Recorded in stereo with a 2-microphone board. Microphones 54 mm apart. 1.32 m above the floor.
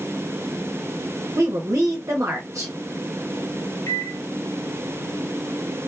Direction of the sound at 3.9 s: 55° left (ahead or behind).